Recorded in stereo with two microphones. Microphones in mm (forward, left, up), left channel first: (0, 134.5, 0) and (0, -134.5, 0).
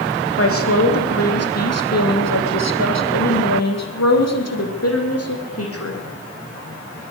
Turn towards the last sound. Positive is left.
turn(degrees=55)  # may be behind; listen again after turning